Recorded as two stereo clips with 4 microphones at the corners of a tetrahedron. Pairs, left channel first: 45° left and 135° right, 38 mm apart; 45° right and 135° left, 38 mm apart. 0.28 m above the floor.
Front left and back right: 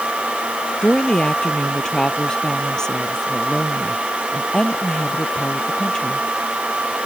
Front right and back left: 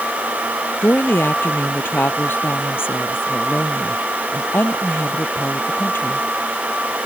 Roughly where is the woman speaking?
Ahead right.